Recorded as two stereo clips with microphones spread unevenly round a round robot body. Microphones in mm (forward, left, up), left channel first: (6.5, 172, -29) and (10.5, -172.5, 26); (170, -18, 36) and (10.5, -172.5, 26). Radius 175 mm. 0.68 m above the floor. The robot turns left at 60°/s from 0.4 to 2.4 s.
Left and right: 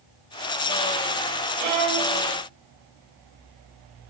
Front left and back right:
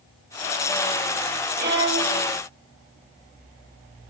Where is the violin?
85° right, 5 m; by 2.2 s 120° right, 5 m.